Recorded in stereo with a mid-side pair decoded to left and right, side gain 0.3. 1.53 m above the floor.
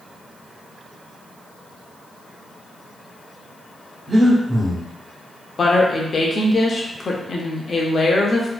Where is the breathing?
45° right, 1.3 m.